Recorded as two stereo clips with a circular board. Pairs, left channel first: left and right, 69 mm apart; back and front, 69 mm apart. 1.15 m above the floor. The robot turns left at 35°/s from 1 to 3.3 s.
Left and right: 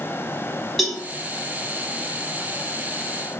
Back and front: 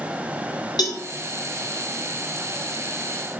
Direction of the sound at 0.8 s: Straight behind.